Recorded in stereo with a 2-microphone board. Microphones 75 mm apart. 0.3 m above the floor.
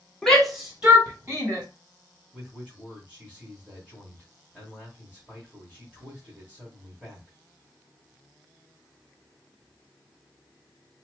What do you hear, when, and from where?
0.2 s a shout: 10° left (ahead or behind), 1.4 m; by 1.6 s 30° right (ahead or behind), 2 m
2.3 s a man speaking: 15° right (ahead or behind), 1.8 m